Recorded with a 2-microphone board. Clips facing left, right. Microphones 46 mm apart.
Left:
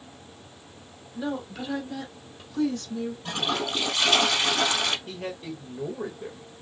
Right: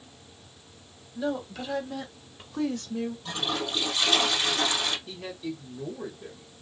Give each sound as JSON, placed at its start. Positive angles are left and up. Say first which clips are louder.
{"t": 1.1, "sound": "a woman speaking", "louder": "right 1 dB", "side_deg": 15, "distance_m": 1.4}
{"t": 3.2, "sound": "a toilet flushing", "louder": "left 2 dB", "side_deg": 45, "distance_m": 1.9}
{"t": 5.1, "sound": "a man speaking", "louder": "left 1 dB", "side_deg": 50, "distance_m": 1.3}